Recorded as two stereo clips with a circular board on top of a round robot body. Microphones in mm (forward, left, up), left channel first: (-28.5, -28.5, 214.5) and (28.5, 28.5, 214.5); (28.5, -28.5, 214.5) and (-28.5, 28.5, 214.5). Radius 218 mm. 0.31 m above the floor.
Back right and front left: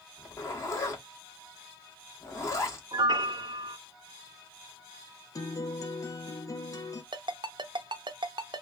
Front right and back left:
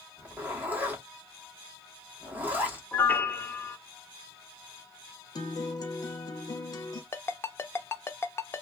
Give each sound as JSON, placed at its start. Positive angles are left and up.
{"t": 0.2, "sound": "a zipper", "azimuth_deg": -165, "distance_m": 1.4}
{"t": 2.9, "sound": "a piano", "azimuth_deg": 25, "distance_m": 0.6}
{"t": 5.3, "sound": "a guitar", "azimuth_deg": -85, "distance_m": 0.7}
{"t": 7.1, "sound": "a ringtone", "azimuth_deg": 20, "distance_m": 0.5}